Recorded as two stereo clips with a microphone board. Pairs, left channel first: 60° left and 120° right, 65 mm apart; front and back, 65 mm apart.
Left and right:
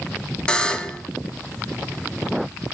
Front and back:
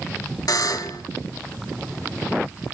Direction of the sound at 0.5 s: 15° right.